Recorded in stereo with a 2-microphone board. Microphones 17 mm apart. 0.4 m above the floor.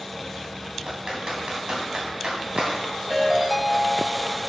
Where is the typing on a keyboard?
60° right (ahead or behind), 2.5 m.